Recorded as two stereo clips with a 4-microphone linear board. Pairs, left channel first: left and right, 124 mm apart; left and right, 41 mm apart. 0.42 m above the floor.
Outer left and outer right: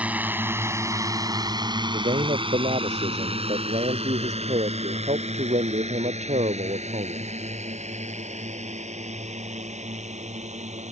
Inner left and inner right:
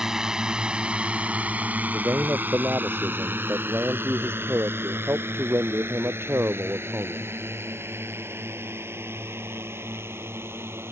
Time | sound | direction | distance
0.0 | a drone | 10° right (ahead or behind) | ?
1.9 | a man speaking | 80° right | ?